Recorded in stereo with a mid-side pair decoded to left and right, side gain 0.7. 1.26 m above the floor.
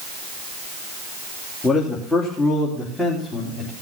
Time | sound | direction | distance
1.6 | a man speaking | 5° left | 2.5 m